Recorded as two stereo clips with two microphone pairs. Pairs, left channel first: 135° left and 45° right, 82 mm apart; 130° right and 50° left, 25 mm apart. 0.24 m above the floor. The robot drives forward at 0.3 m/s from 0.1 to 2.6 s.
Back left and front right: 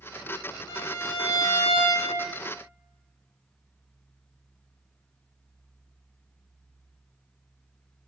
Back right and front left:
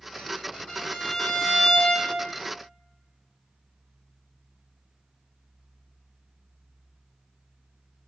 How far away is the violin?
About 0.8 m.